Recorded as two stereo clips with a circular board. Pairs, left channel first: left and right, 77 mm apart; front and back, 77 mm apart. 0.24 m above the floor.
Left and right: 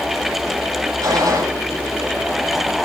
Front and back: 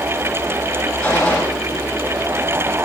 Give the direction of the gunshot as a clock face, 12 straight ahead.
2 o'clock.